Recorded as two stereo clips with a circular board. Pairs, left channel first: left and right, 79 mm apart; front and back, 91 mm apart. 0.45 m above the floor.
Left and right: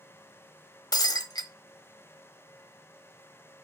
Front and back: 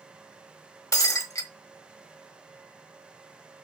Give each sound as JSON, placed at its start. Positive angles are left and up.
{"t": 0.9, "sound": "breaking glass", "azimuth_deg": 55, "distance_m": 1.1}